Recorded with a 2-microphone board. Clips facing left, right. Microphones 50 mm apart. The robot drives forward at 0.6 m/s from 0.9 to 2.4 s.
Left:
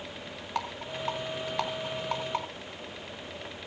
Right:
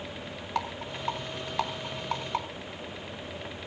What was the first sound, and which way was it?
A rattle, 5° left (ahead or behind).